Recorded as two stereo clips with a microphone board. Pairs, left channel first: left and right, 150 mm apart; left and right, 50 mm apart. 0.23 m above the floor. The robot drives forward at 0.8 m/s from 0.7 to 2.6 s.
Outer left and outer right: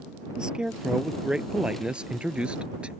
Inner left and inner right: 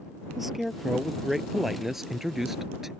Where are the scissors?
I don't hear scissors.